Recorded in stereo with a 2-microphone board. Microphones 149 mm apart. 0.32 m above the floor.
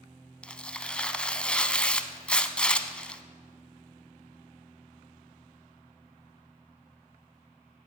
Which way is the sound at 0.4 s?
5° left (ahead or behind).